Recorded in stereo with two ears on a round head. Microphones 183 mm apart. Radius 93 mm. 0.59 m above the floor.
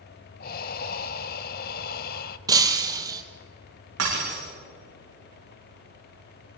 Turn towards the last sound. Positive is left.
turn(degrees=-75)  # may be behind; listen again after turning